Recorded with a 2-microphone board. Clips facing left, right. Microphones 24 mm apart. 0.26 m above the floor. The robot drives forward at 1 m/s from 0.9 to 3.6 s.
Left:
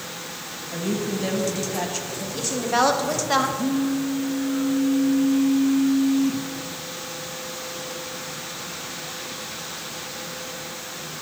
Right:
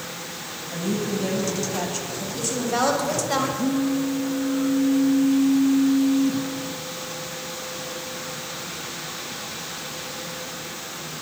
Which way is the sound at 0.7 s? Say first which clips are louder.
Even; centre (ahead or behind).